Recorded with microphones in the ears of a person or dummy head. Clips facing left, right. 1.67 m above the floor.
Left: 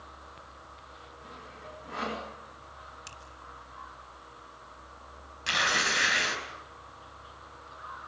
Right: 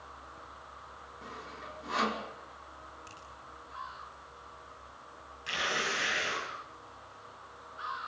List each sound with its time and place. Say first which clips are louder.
1.2 s sawing: right 2 dB; 80° right, 5.5 m
3.1 s a finger snap: left 1 dB; 75° left (ahead or behind), 8 m
5.5 s tearing paper: left 3 dB; 65° left (ahead or behind), 6 m